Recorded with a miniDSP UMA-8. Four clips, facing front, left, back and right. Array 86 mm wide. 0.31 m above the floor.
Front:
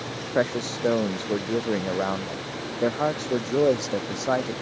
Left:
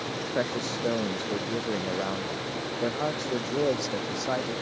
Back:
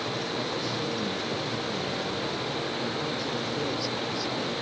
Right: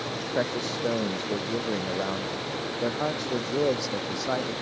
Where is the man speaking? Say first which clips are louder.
Right 1 dB, front 6 dB; 5° right.